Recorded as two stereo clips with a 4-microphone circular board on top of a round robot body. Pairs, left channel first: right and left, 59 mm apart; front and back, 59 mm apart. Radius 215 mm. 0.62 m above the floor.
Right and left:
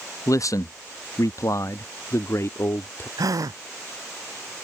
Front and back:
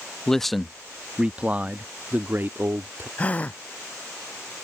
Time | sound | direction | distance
0.3 | a man speaking | 80° right | ?
3.2 | a gasp | 65° left | ?